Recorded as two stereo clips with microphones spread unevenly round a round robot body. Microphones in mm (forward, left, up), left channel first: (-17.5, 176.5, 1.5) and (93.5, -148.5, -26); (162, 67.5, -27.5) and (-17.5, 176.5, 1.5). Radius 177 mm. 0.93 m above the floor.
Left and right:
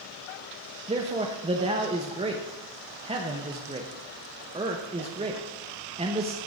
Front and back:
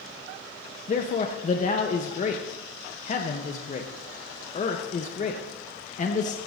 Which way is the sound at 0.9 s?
10° right.